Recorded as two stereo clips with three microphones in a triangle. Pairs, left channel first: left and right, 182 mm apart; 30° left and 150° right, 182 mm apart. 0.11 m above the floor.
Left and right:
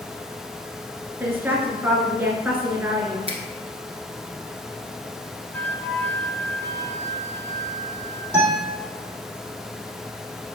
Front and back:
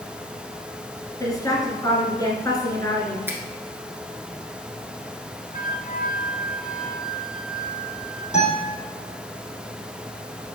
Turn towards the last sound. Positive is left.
turn(degrees=-15)